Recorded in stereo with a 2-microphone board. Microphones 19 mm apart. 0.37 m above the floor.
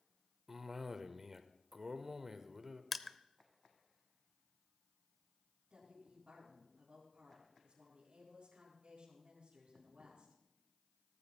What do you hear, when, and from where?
0.5 s a cough: 20° right (ahead or behind), 0.8 m
2.9 s crushing: centre (ahead or behind), 0.5 m
5.7 s a woman speaking: 65° right (ahead or behind), 3.5 m